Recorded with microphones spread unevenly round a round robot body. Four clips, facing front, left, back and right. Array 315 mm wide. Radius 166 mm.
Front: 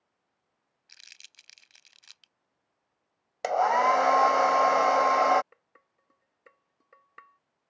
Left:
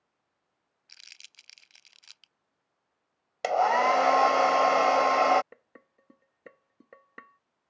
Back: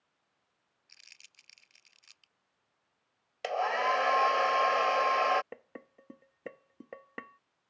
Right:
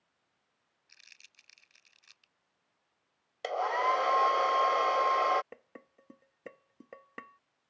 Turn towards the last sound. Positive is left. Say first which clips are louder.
# right 3 dB, back 15 dB
turn(degrees=-170)